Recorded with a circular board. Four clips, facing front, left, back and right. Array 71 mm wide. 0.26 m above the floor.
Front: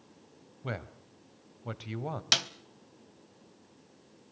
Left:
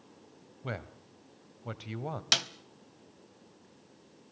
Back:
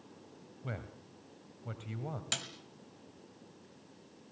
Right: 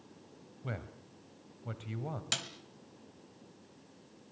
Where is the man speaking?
40° left, 1.3 m.